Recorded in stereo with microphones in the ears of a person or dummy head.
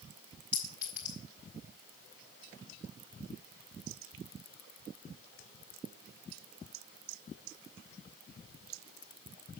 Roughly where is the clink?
Centre.